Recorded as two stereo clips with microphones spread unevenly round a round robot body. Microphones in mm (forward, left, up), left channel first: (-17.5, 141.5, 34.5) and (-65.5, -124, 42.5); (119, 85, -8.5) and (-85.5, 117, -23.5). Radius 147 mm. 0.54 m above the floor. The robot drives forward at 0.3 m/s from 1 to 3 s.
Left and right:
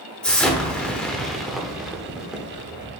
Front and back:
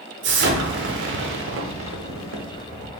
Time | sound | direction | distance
0.2 | an explosion | 165° left | 0.6 m